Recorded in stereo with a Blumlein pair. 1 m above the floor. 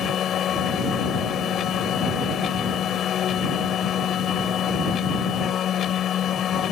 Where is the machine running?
25° left.